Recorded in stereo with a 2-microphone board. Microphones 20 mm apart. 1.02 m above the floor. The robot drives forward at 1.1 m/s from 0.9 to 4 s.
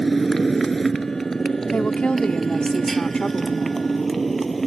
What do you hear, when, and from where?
0.0 s a motorcycle: 15° left (ahead or behind); by 4.7 s 10° left (ahead or behind)
1.7 s a woman speaking: 85° left; by 3.9 s 35° left (ahead or behind)